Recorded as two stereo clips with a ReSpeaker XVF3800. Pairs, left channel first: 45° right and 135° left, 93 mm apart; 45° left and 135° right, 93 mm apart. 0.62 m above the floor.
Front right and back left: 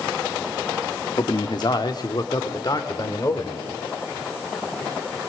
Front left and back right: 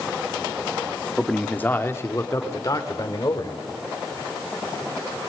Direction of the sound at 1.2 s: 40° right.